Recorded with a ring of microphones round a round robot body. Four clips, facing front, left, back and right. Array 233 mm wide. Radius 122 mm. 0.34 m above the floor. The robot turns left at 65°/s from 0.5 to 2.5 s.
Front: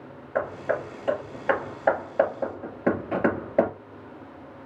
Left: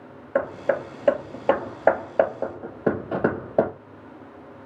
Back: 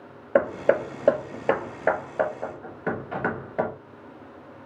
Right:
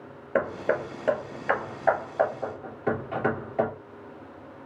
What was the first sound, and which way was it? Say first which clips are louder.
Hammering: left 2 dB, back 6 dB; 165° right.